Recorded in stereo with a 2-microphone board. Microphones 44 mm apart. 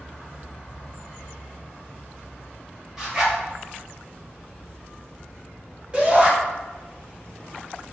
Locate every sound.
3.0 s a zipper: 5° right (ahead or behind), 1.4 m
5.9 s a shout: 20° right (ahead or behind), 1.6 m